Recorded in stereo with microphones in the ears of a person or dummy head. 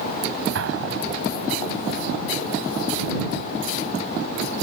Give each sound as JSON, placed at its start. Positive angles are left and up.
{"t": 0.6, "sound": "an explosion", "side_deg": -80}